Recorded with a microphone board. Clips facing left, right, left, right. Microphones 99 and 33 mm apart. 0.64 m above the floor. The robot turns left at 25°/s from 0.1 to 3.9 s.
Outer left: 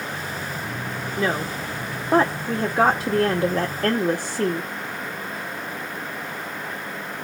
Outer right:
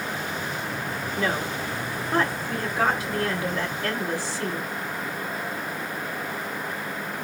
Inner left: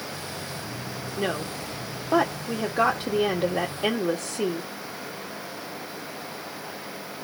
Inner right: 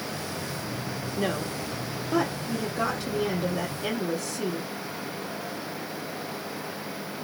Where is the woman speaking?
160° left, 1.5 m; by 4.7 s 90° left, 1.5 m.